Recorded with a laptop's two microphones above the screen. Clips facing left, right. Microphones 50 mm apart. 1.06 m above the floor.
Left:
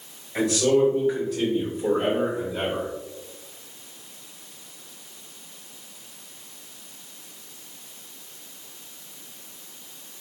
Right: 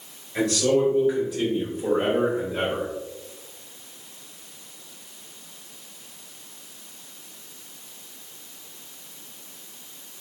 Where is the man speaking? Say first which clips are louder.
Left 1 dB; 10° left (ahead or behind), 1.4 m; by 2.9 s 60° right (ahead or behind), 0.9 m.